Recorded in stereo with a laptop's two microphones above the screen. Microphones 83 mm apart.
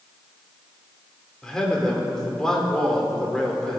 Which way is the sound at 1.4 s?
5° left (ahead or behind).